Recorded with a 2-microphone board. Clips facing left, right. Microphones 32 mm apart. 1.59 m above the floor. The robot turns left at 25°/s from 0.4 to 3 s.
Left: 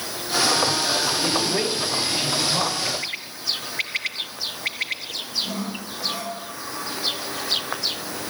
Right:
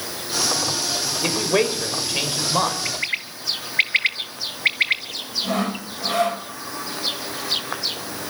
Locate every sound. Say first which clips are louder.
1.2 s a man speaking: right 2 dB; 100° right, 5.5 m; by 2.8 s 140° right, 5.5 m
2.9 s a bird: right 3 dB; 35° right (ahead or behind), 1.8 m; by 5.0 s 40° right (ahead or behind), 1.8 m
5.4 s sawing: right 5 dB; 65° right (ahead or behind), 3.5 m